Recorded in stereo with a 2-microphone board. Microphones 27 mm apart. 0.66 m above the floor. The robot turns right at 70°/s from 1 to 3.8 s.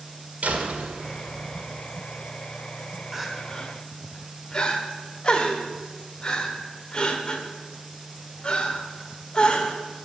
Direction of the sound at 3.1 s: 15° right (ahead or behind).